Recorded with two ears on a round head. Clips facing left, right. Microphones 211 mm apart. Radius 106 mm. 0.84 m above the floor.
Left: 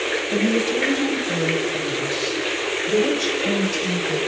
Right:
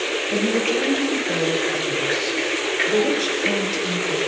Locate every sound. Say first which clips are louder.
0.3 s a woman speaking: left 1 dB; 5° left (ahead or behind), 6.5 m; by 4.2 s 20° left (ahead or behind), 4.5 m